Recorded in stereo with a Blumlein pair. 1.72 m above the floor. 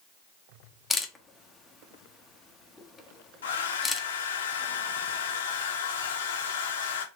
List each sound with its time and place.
0.9 s a camera shutter: 10° left, 0.7 m
3.4 s a hair dryer: 65° left, 0.8 m